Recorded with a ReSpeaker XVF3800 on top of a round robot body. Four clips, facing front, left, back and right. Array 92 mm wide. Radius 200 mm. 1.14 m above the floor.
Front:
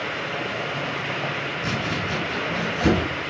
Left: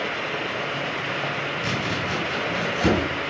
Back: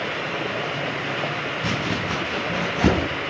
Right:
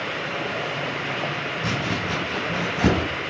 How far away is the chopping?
About 4 m.